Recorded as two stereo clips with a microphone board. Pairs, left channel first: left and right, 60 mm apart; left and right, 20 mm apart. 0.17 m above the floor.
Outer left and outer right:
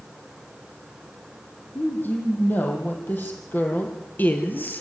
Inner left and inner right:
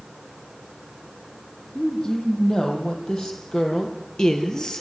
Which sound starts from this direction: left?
A woman speaking, at 1.8 s.